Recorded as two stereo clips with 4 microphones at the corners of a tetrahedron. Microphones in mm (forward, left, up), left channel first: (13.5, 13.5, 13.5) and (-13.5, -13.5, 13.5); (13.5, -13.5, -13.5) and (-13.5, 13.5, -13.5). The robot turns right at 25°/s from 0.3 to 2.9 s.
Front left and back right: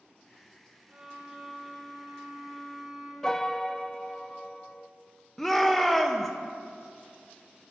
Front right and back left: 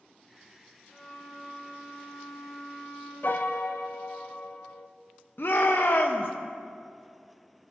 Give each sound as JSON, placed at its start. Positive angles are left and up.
{"t": 0.9, "sound": "a violin", "azimuth_deg": -95, "distance_m": 5.5}
{"t": 3.2, "sound": "a piano", "azimuth_deg": -30, "distance_m": 0.7}
{"t": 5.4, "sound": "a shout", "azimuth_deg": -35, "distance_m": 1.1}